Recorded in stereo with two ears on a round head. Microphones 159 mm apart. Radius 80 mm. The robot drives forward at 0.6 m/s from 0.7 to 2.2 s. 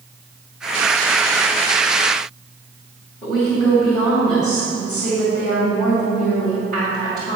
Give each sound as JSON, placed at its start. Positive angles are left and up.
{"t": 3.2, "sound": "a woman speaking", "side_deg": 15, "distance_m": 3.0}